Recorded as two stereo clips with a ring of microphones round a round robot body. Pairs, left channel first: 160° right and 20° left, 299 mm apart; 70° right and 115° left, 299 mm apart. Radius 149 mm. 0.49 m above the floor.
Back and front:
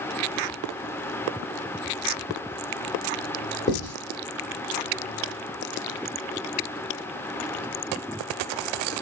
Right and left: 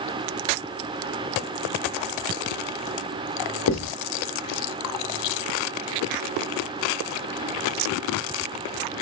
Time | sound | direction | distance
3.7 | writing | 90° right | 0.8 m